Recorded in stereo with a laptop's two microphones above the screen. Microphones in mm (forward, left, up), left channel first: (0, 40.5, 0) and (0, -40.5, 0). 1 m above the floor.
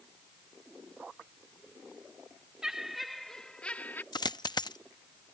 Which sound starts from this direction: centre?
Laughter, at 2.6 s.